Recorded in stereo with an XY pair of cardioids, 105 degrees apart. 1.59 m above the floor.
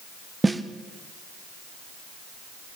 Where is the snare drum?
15° right, 1.5 m.